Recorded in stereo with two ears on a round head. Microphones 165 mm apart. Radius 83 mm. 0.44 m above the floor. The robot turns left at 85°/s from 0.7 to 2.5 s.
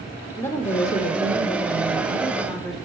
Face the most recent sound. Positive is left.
turn(degrees=0)